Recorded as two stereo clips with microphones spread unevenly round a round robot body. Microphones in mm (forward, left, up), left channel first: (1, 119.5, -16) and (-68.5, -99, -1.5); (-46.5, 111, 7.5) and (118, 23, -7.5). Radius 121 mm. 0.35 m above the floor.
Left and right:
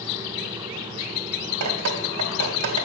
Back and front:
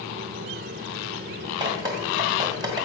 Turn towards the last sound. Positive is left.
turn(degrees=-95)